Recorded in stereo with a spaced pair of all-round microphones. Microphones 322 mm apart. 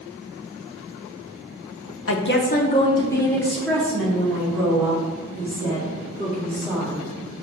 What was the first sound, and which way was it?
A woman speaking, 45° left (ahead or behind).